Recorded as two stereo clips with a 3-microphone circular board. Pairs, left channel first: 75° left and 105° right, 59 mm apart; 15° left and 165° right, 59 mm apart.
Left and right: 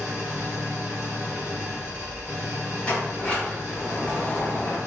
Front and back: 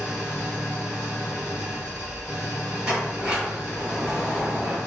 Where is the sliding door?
130° left, 1.3 m.